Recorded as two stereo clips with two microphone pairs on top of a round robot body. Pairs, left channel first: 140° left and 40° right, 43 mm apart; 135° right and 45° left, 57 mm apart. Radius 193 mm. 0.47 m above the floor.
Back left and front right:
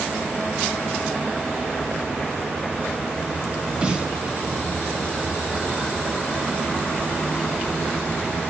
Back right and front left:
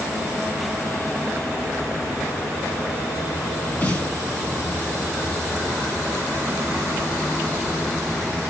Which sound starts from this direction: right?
A snare drum, at 3.8 s.